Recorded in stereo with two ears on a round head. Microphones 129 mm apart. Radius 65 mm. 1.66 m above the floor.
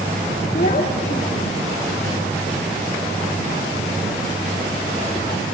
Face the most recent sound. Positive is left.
turn(degrees=50)  # may be behind; listen again after turning